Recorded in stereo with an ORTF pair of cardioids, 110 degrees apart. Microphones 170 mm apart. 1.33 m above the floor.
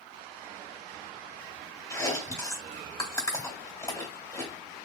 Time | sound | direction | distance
1.9 | chewing | 15° left | 1.6 m